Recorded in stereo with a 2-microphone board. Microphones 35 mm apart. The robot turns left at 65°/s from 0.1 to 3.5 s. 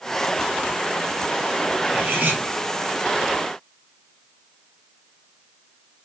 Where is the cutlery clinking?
45° right, 3.5 m; by 2.4 s 85° right, 3.5 m.